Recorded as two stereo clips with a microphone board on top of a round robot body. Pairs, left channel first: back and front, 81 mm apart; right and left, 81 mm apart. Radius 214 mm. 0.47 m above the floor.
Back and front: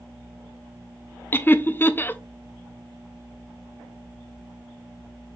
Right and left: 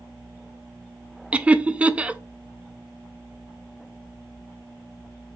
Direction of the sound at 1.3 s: 150° left.